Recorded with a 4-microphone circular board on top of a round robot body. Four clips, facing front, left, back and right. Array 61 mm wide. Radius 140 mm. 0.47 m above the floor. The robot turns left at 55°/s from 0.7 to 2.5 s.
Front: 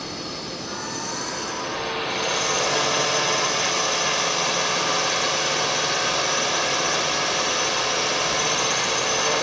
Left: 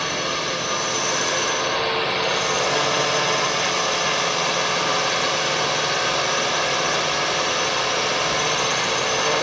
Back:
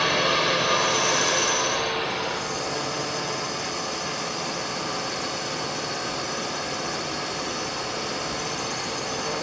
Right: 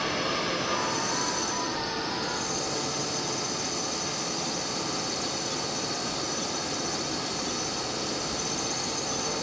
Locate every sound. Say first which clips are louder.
0.0 s a drone: left 4 dB, back 11 dB; 160° left; by 9.4 s 60° left